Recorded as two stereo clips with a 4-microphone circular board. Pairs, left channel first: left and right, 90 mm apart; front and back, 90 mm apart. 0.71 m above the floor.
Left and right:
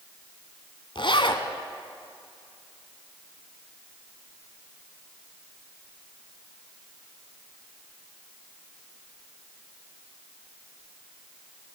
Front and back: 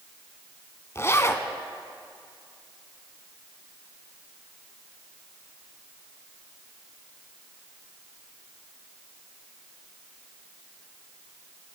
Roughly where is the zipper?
Ahead left.